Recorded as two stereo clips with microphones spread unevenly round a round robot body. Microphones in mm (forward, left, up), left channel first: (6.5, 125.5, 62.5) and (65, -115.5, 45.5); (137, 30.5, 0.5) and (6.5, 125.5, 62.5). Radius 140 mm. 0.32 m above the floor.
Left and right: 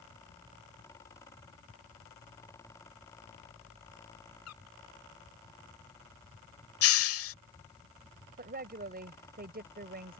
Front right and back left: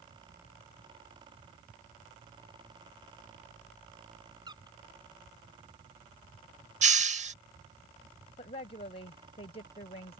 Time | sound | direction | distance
4.5 | a squeak | 80° left | ?
6.8 | a hiss | 90° left | ?
8.4 | a woman speaking | 40° right | ?